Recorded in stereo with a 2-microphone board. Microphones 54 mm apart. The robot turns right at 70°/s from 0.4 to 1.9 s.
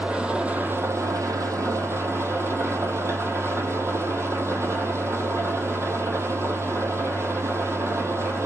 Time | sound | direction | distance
0.0 | an engine running | 160° right | 0.9 m